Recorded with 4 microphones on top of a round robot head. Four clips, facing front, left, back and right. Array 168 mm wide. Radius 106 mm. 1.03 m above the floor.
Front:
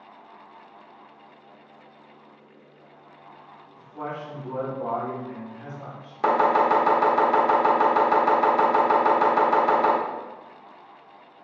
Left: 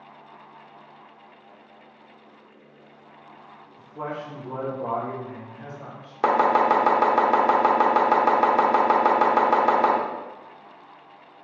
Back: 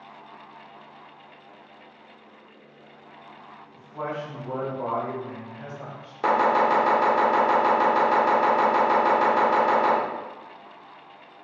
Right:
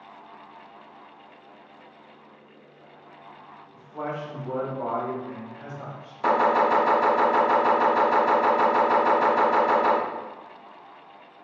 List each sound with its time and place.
3.7 s a man speaking: 125° right, 1.2 m
6.2 s chopping: 90° left, 0.8 m